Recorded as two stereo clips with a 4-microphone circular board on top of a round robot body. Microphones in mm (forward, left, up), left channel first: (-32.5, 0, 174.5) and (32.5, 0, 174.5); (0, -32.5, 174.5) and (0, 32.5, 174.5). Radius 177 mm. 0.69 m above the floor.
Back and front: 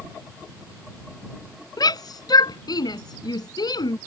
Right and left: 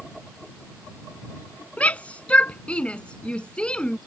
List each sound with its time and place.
1.8 s a shout: 160° right; by 4.0 s 165° right